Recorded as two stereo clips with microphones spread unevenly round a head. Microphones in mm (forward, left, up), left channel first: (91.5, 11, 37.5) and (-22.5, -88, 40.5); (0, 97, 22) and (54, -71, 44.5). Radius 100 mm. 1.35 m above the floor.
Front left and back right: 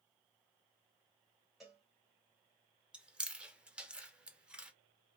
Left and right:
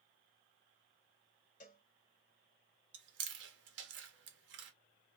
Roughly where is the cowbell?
Behind left.